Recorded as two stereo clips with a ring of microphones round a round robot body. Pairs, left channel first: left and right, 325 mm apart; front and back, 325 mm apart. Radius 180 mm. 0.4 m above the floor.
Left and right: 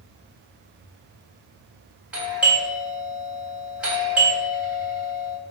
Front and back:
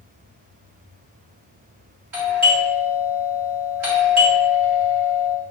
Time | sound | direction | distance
2.1 | a doorbell | 175° right | 1.7 m